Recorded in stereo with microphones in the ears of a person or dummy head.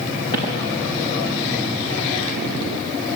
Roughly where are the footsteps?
Left.